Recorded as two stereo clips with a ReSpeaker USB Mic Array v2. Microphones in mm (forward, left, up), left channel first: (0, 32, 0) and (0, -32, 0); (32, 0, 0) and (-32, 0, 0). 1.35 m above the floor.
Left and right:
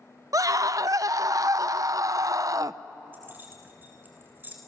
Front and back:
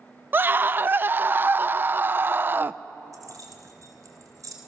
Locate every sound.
0.3 s a scream: 120° right, 0.7 m
3.1 s keys jangling: 150° right, 3.5 m